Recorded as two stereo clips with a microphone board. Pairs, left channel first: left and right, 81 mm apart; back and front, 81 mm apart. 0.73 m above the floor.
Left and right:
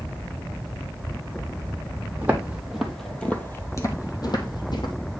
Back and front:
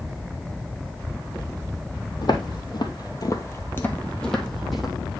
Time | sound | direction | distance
2.2 | footsteps | 160° right | 1.5 m